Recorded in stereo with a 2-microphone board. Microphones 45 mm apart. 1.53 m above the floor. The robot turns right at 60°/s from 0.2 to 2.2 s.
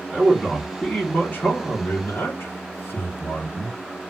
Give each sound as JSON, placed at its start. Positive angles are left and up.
{"t": 0.1, "sound": "a man speaking", "azimuth_deg": -20, "distance_m": 0.9}